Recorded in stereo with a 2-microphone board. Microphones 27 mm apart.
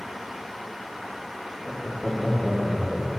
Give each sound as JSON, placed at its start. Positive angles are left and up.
{"t": 1.6, "sound": "laughter", "side_deg": 30, "distance_m": 2.5}